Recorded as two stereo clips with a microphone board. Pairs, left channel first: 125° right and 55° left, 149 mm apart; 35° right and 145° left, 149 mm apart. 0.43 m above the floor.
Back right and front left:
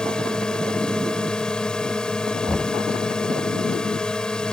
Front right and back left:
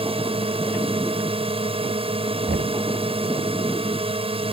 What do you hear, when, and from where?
0.0 s a drone: 155° left
2.5 s knocking: 145° left